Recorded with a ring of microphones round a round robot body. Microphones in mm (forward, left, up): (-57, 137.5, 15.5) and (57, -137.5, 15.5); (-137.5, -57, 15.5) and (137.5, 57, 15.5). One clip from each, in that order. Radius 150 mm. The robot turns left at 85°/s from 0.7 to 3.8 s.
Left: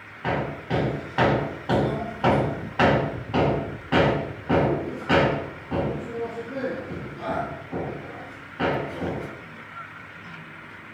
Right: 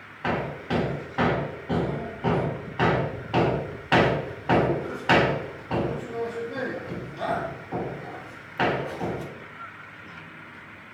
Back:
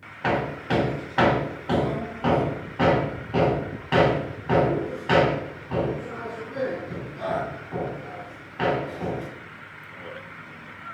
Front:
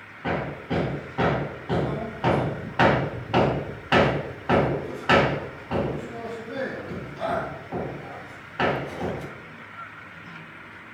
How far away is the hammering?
About 2.5 m.